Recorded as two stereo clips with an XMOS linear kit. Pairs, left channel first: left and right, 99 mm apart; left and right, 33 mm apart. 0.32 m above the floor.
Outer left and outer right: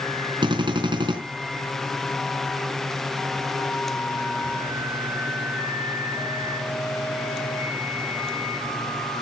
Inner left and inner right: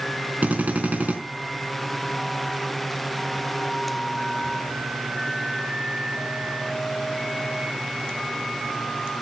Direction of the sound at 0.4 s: 50° right (ahead or behind).